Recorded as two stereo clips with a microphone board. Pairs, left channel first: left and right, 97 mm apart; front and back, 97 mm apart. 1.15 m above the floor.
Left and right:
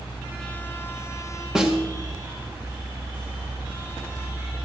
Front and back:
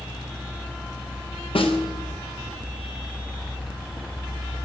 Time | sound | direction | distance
1.6 | a snare drum | 5° right | 1.5 m